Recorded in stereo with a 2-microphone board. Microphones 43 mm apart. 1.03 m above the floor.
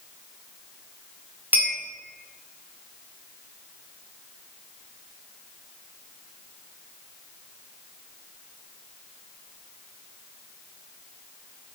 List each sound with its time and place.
1.5 s a clink: 40° right (ahead or behind), 0.8 m